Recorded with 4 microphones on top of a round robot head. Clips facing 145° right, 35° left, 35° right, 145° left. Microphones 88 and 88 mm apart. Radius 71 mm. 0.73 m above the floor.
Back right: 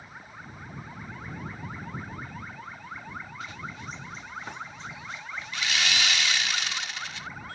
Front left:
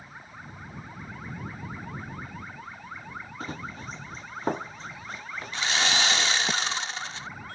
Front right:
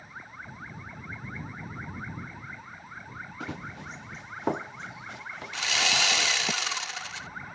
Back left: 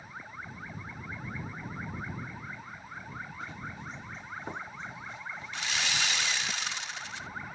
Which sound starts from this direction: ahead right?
Sawing, at 5.5 s.